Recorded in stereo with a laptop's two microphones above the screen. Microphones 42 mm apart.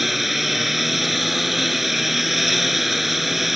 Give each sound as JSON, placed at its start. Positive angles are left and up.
{"t": 0.0, "sound": "a lawn mower", "side_deg": -5}